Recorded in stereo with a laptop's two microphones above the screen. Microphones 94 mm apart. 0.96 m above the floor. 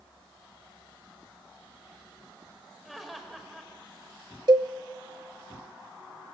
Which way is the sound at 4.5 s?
55° right (ahead or behind).